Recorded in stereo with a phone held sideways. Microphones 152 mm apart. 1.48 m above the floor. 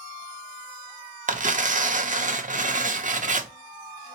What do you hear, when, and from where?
1.3 s tearing paper: 55° right (ahead or behind), 0.6 m